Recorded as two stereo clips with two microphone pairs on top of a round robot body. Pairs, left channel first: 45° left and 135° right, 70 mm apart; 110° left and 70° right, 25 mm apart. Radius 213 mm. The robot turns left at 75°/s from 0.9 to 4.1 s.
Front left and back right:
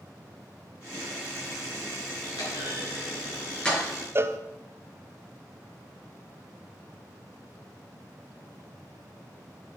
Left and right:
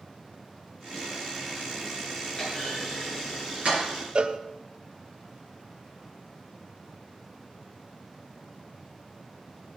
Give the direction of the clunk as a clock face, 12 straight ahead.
10 o'clock.